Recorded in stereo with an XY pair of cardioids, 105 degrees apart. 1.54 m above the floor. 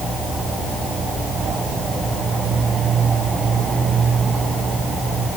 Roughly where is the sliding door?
No sliding door in this recording.